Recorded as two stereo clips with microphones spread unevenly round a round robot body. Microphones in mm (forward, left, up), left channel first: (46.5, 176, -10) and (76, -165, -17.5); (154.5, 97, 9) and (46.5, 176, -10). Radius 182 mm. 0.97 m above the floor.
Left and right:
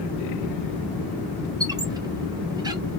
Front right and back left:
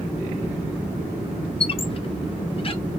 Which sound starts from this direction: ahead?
A squeak, at 1.6 s.